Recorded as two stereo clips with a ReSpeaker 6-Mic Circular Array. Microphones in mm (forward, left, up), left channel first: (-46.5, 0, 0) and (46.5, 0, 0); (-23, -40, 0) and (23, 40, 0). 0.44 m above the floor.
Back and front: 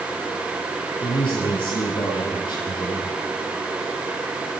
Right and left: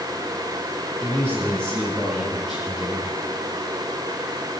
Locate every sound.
1.0 s a man speaking: 165° left, 8 m; by 3.1 s 145° left, 8 m